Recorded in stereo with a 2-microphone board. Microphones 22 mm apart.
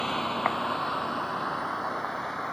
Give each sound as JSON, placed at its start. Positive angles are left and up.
{"t": 0.0, "sound": "a vehicle", "side_deg": 20}